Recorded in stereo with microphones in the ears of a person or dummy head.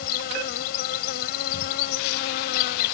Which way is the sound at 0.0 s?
60° left (ahead or behind).